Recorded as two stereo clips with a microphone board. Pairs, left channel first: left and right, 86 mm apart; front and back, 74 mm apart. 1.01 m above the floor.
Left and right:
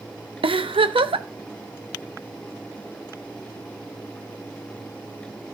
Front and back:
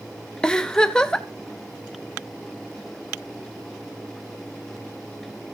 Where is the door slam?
No door slam in this recording.